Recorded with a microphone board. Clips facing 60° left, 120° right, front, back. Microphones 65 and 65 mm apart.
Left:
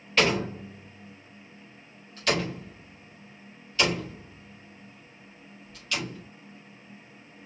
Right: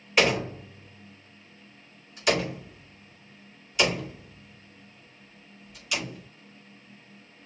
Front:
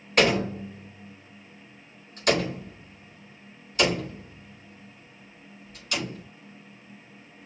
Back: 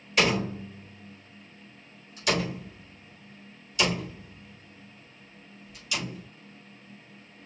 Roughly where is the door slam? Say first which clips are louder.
Right 1 dB, front 3 dB; ahead right.